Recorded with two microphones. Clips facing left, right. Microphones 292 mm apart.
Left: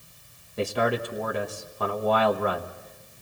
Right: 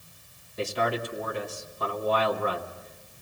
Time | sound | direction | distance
0.6 | a man speaking | 65° left (ahead or behind) | 1.4 m